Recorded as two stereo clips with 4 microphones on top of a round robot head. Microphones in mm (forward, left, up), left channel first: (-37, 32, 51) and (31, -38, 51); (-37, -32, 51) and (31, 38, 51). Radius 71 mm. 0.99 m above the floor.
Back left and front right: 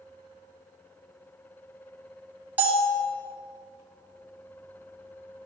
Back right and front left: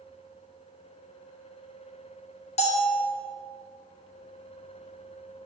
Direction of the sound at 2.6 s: 120° right.